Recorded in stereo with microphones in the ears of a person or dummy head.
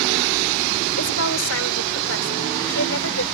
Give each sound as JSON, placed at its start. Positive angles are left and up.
{"t": 1.0, "sound": "a woman speaking", "side_deg": 80}